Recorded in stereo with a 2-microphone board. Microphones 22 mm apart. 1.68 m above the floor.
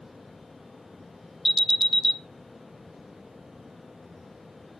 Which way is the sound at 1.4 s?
Centre (ahead or behind).